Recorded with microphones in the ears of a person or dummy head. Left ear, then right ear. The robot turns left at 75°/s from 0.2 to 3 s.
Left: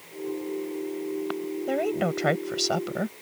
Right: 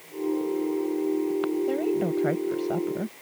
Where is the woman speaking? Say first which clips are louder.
Even; 150° left; by 3.1 s 50° left.